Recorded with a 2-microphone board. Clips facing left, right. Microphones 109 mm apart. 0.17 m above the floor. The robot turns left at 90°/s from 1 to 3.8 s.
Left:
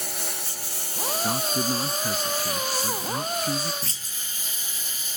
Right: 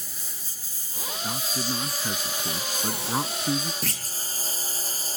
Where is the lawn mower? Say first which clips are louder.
Left 11 dB; 75° left (ahead or behind); by 5.2 s 35° right (ahead or behind).